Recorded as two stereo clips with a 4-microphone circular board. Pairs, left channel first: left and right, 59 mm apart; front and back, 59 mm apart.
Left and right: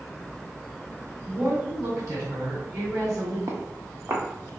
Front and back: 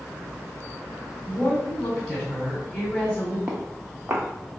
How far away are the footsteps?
About 1.1 m.